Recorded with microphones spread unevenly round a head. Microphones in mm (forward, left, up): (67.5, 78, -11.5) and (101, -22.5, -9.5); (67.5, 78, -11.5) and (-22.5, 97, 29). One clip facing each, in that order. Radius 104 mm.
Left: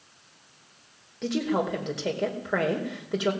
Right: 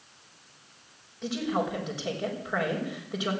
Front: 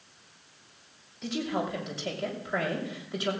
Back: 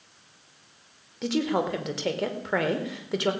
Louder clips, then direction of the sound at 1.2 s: Left 3 dB, back 5 dB; 155° left.